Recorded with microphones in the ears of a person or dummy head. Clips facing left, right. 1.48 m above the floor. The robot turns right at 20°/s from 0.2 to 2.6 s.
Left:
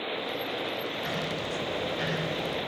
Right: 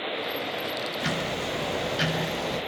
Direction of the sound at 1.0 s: 105° right.